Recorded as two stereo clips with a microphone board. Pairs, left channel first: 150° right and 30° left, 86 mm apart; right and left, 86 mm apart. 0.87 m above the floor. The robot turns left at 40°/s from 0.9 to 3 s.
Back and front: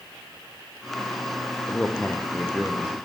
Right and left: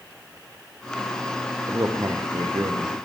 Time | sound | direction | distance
1.7 | a man speaking | 145° left | 0.5 m